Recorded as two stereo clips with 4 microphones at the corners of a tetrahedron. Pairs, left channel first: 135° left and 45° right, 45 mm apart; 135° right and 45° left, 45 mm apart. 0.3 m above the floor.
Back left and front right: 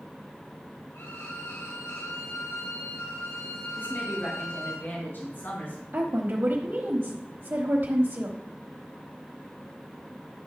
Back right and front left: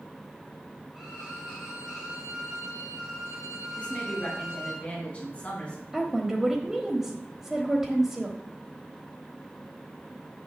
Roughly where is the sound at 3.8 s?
Behind.